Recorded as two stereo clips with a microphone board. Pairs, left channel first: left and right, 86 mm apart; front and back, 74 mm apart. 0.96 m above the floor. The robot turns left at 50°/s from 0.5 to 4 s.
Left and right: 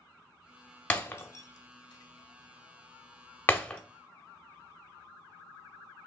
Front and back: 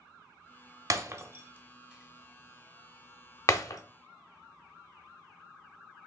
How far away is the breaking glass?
About 0.7 m.